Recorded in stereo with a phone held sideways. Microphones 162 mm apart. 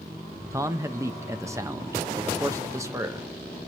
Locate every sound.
0.5 s a man speaking: 20° right (ahead or behind), 0.7 m